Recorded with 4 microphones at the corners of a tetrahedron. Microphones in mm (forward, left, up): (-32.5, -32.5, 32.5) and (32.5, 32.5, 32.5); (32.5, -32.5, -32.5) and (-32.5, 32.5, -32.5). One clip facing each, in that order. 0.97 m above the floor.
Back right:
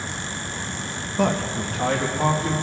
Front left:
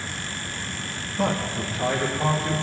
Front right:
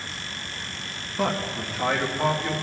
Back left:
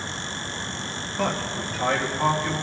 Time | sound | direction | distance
1.2 | a man speaking | 125° right | 0.8 m